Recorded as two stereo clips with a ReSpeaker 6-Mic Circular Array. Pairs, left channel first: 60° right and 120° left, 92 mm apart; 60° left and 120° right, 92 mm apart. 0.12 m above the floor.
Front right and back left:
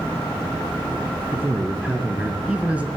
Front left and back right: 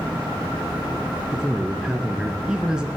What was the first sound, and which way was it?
A man speaking, 175° left.